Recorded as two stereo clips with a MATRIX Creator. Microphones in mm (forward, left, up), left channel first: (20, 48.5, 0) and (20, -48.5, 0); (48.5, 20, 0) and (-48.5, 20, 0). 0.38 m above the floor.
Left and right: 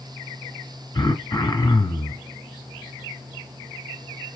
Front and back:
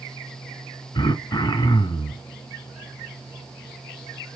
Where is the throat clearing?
35° left, 1.8 m.